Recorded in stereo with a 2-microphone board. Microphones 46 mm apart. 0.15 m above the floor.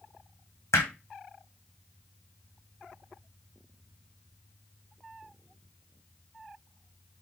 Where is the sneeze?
I don't hear a sneeze.